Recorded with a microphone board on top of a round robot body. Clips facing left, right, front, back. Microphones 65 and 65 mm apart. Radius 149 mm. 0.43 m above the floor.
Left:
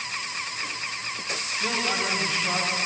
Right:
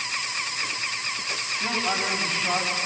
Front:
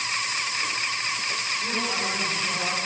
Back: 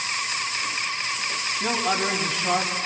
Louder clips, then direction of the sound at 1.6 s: Even, back 7 dB; 160° right.